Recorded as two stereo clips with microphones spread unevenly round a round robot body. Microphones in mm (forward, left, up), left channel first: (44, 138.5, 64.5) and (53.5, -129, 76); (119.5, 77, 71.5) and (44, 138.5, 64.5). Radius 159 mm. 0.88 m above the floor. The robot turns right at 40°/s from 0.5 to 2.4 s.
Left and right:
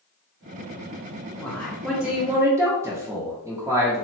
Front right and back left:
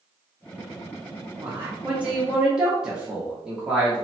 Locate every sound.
1.4 s a man speaking: 160° left, 0.7 m; by 4.0 s 160° right, 0.7 m